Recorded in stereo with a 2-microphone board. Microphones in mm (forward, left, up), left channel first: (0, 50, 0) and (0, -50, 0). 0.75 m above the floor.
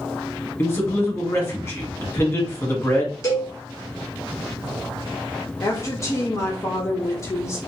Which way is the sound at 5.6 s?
30° left (ahead or behind).